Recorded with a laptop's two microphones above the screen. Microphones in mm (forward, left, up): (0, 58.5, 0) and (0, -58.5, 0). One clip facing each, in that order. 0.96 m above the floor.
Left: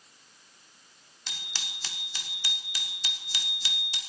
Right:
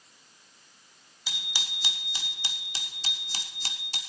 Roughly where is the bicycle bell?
Centre.